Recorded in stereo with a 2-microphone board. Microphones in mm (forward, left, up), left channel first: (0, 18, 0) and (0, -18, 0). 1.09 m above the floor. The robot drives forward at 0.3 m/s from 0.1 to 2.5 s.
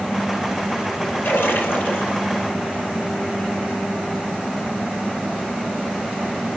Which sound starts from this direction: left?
A splash, at 1.2 s.